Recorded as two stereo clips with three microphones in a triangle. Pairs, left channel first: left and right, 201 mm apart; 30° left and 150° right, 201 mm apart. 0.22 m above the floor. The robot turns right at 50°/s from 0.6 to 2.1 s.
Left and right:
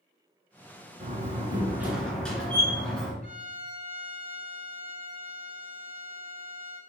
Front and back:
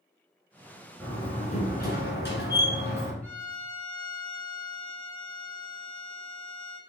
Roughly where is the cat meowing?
No cat meowing in this recording.